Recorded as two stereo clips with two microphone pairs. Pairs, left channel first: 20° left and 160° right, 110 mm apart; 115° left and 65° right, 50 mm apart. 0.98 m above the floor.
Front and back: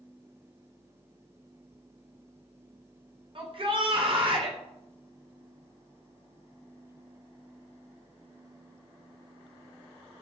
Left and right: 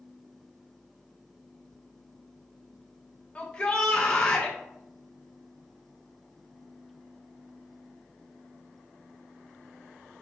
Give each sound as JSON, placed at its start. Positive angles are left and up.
{"t": 3.4, "sound": "a shout", "azimuth_deg": 175, "distance_m": 0.5}